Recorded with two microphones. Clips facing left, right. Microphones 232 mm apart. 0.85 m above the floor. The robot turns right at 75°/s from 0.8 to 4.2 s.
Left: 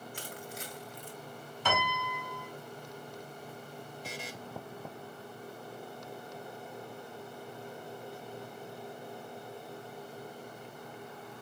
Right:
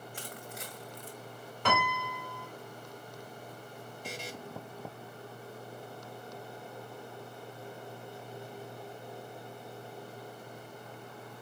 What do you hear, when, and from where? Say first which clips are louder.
0.1 s crushing: left 1 dB; 60° right (ahead or behind), 1.5 m; by 1.2 s 30° right (ahead or behind), 1.5 m
1.6 s a piano: right 2 dB; 70° right, 2.5 m; by 2.5 s 5° right, 2.5 m
4.0 s a buzzer: right 3 dB; 5° right (ahead or behind), 0.8 m; by 4.3 s 5° left (ahead or behind), 0.8 m